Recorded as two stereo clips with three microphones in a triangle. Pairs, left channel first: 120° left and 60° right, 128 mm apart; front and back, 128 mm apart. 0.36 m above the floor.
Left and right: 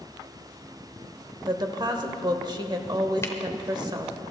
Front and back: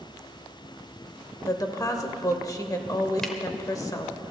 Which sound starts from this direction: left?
A camera shutter, at 3.2 s.